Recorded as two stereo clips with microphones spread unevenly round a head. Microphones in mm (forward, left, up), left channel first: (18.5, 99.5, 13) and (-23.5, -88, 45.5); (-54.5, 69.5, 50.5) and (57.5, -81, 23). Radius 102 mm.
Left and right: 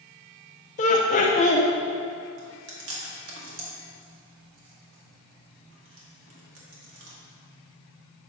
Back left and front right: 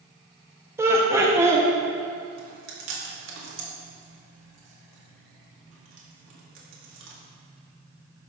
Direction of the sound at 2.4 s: 75° right.